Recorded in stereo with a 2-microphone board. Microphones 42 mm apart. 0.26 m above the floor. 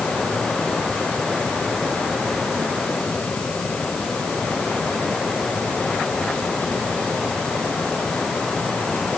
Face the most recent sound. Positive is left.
No sound to turn to.